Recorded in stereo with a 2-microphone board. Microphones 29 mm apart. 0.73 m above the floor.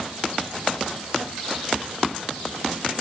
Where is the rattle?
I don't hear a rattle.